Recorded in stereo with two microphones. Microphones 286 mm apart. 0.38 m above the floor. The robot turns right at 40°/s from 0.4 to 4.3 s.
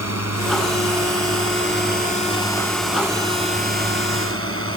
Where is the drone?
80° left; by 4.8 s 120° right.